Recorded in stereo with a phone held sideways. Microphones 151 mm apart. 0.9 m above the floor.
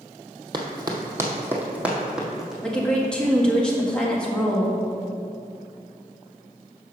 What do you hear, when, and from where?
0.5 s running footsteps: 30° right (ahead or behind), 1.3 m; by 2.5 s centre (ahead or behind), 2 m
2.6 s a woman speaking: 5° left (ahead or behind), 1.5 m